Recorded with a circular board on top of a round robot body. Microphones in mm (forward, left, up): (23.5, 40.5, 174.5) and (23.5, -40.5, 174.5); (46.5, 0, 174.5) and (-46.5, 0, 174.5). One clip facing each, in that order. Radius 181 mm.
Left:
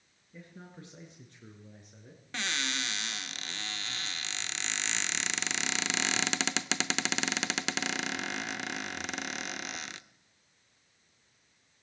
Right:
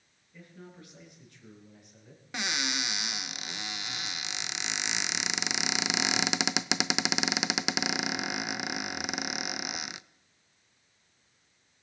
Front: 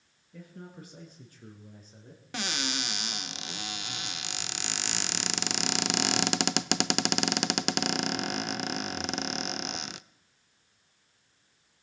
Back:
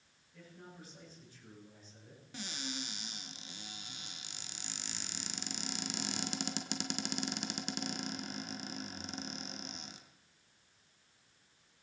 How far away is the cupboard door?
About 0.7 m.